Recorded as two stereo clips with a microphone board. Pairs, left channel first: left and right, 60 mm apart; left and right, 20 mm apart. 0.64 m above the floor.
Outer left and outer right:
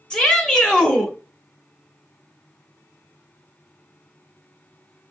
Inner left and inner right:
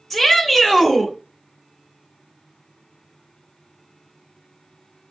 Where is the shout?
10° left (ahead or behind), 0.9 m.